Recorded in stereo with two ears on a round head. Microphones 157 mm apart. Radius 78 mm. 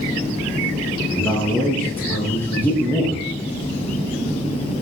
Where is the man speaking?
10° left (ahead or behind), 8 m.